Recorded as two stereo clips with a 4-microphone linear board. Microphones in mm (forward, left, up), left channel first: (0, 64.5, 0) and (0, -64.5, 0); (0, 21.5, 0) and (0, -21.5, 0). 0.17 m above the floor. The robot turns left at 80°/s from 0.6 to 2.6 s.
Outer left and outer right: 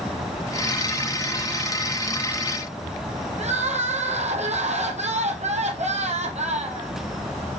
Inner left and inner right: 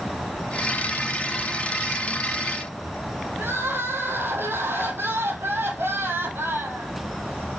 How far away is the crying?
About 1.8 m.